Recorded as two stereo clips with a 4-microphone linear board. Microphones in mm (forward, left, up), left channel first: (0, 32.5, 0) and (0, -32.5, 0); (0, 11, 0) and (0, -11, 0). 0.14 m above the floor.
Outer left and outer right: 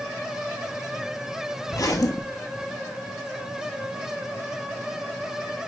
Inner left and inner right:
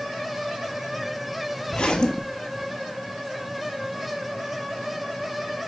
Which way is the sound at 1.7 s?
60° left (ahead or behind).